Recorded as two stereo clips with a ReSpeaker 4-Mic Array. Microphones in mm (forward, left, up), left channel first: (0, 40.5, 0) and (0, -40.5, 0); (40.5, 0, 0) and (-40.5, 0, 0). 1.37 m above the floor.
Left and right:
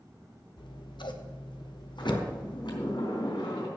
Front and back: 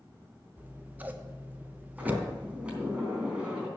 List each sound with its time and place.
0.6 s scissors: 110° left, 1.0 m
2.0 s a sliding door: 105° left, 3.5 m